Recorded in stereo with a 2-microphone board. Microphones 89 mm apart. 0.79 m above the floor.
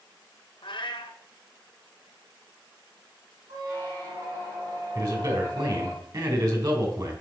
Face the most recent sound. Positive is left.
turn(degrees=-50)  # may be behind; listen again after turning